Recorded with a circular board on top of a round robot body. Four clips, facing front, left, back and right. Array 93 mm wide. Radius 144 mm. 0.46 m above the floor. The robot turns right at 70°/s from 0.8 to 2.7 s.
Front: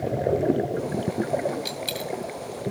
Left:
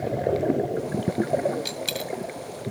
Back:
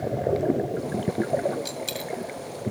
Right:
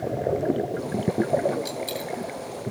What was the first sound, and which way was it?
A dropped coin, 65° left.